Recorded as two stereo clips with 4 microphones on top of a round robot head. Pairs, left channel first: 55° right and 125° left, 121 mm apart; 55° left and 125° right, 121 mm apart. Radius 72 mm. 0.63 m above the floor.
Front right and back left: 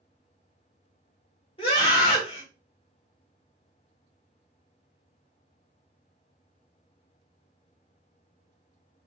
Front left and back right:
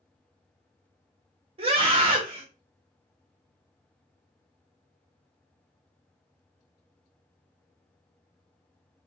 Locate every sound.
1.6 s a scream: 95° right, 1.7 m